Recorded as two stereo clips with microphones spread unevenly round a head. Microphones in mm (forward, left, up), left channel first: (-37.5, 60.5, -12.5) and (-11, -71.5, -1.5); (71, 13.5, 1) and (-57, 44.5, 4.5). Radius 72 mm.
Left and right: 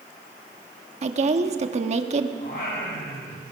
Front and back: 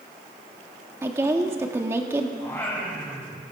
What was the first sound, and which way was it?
A woman speaking, 120° right.